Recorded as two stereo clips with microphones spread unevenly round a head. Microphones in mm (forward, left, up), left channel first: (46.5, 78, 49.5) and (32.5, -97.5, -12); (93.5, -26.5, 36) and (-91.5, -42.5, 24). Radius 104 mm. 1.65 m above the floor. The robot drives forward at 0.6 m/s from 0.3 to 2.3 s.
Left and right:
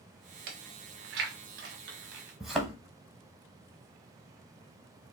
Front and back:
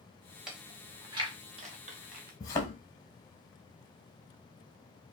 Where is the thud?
45° left, 1.0 m.